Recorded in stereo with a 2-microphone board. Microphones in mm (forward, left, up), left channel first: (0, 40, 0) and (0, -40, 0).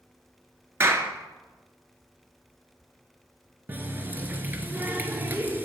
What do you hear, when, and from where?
0.8 s a clap: 35° right (ahead or behind), 1.1 m
3.7 s a running tap: 25° right (ahead or behind), 1.2 m